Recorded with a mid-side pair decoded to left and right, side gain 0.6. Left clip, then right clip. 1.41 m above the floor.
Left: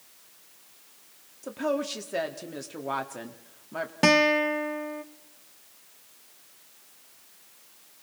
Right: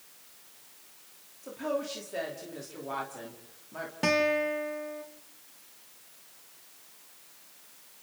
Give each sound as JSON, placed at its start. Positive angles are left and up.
{"t": 1.4, "sound": "a woman speaking", "azimuth_deg": 40, "distance_m": 3.0}
{"t": 4.0, "sound": "a guitar", "azimuth_deg": 40, "distance_m": 1.4}